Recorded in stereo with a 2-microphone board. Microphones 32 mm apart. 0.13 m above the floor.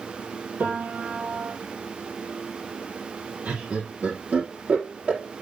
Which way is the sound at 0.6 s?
60° right (ahead or behind).